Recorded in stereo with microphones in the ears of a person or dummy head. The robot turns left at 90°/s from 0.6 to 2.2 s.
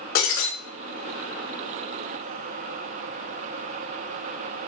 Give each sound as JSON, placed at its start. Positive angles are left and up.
{"t": 0.1, "sound": "breaking glass", "side_deg": 65, "distance_m": 5.0}